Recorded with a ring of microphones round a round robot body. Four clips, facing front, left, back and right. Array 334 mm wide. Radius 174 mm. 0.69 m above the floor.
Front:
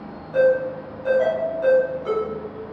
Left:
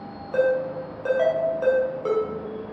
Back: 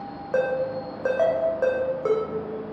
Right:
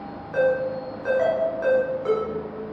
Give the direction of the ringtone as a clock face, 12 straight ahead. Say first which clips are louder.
Even, front 6 dB; 7 o'clock.